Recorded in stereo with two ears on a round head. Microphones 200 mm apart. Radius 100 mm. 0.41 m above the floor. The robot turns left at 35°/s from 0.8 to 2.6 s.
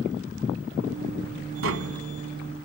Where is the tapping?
65° right (ahead or behind), 1.4 m; by 2.0 s 75° right (ahead or behind), 1.4 m.